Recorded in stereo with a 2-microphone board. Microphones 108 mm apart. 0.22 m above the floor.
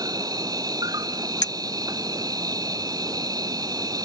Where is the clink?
35° left (ahead or behind).